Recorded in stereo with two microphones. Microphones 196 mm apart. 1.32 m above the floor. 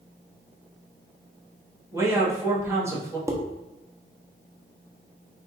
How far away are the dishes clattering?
About 0.6 m.